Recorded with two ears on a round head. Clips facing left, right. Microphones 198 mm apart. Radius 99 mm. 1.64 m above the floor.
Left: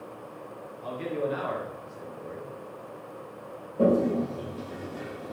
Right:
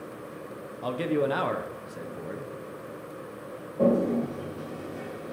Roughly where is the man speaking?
Right.